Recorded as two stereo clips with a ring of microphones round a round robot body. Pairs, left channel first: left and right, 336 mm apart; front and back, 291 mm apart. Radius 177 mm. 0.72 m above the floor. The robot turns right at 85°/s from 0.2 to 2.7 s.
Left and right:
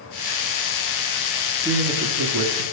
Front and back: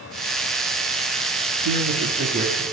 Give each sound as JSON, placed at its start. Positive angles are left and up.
{"t": 1.6, "sound": "a man speaking", "azimuth_deg": -175, "distance_m": 1.7}